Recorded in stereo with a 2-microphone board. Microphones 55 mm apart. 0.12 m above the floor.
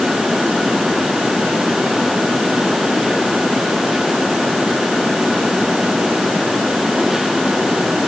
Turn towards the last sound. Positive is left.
No sound to turn to.